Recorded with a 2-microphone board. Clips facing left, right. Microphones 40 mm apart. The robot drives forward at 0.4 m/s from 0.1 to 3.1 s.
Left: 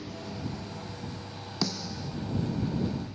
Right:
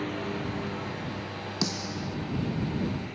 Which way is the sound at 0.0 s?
45° right (ahead or behind).